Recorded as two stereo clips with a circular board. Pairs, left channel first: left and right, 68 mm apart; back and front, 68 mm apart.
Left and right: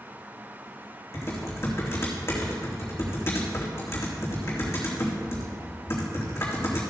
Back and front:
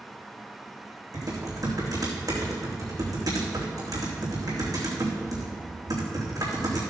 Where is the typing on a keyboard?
35° left, 3 m.